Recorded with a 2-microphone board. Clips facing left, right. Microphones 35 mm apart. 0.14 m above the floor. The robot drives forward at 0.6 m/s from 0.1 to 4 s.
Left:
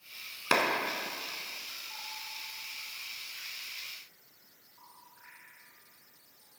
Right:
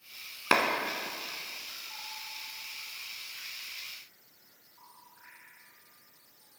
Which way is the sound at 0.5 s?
20° right (ahead or behind).